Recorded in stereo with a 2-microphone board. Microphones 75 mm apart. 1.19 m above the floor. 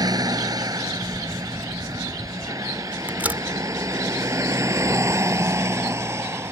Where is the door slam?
25° right (ahead or behind).